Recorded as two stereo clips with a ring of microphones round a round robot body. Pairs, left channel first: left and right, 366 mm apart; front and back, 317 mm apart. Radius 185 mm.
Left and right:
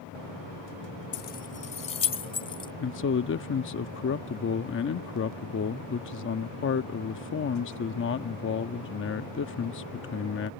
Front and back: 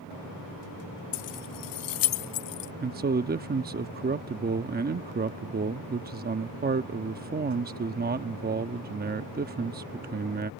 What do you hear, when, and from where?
1.1 s keys jangling: 30° left; by 2.7 s 15° left
2.8 s a man speaking: 130° left